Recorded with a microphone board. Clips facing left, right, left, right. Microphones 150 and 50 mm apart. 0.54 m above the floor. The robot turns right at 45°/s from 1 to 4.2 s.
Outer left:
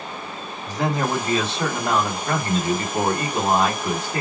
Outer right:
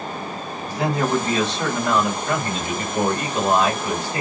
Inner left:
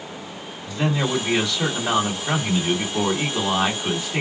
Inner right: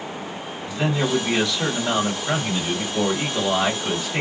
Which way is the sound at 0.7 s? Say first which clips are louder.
Outer right 1 dB, even; 15° right.